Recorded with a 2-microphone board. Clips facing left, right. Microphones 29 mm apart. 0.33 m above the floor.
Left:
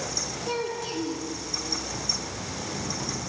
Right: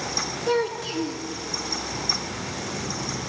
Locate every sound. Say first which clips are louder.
0.5 s a child speaking: right 6 dB; 15° right (ahead or behind), 2.5 m